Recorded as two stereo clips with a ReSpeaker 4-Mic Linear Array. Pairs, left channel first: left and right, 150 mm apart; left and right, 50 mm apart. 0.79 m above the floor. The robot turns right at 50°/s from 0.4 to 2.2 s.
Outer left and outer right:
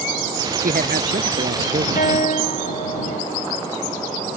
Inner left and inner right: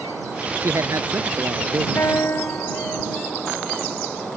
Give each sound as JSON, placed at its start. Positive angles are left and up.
{"t": 0.6, "sound": "a man speaking", "azimuth_deg": -115}
{"t": 2.0, "sound": "a guitar", "side_deg": 65}